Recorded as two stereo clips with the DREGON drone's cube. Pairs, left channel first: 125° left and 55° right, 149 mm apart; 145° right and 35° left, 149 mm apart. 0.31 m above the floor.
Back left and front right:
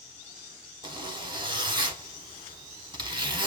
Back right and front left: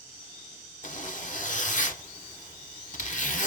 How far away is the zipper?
About 0.7 m.